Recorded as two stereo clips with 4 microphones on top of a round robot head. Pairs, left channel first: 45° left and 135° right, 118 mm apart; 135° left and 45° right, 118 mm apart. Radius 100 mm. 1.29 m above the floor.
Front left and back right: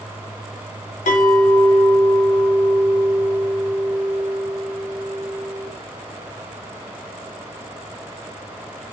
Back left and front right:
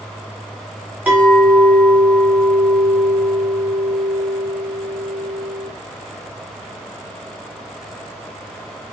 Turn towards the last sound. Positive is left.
turn(degrees=35)